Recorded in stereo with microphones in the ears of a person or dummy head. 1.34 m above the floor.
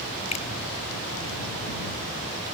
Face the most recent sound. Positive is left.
turn(degrees=35)  # may be behind; listen again after turning